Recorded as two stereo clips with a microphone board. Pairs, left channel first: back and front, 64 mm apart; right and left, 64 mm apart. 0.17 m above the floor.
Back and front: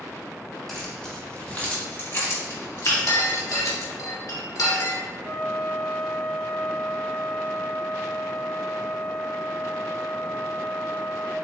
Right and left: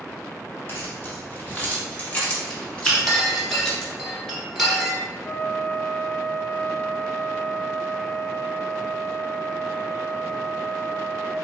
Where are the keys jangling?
95° right, 1.2 m; by 3.9 s 170° right, 2 m.